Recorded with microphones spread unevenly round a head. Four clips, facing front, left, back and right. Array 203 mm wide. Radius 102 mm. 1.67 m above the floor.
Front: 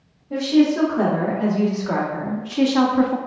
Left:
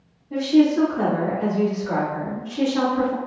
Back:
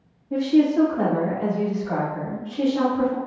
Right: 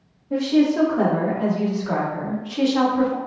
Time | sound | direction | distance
0.3 | a woman speaking | 45° right | 1.8 m